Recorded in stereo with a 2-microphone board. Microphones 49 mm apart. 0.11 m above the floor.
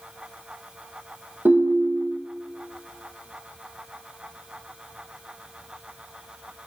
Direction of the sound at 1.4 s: 40° right (ahead or behind).